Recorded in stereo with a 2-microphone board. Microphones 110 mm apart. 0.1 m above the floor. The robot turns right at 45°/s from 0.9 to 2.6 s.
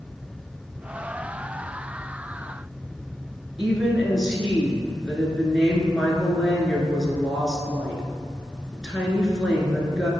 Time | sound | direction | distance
3.6 | a woman speaking | centre (ahead or behind) | 1.2 m